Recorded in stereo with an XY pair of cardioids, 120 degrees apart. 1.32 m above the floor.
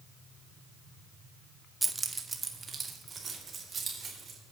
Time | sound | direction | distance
1.8 | keys jangling | 10° right | 0.8 m